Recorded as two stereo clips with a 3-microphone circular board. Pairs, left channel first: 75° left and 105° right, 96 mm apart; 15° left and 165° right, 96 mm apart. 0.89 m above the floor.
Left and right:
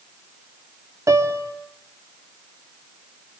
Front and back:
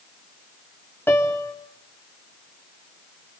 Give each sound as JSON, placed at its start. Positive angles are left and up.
{"t": 1.1, "sound": "a piano", "azimuth_deg": -50, "distance_m": 2.0}